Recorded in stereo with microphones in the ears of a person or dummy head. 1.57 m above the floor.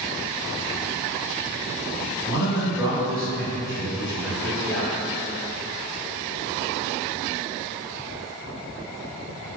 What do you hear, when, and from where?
2.3 s a man speaking: 10° left (ahead or behind), 1.2 m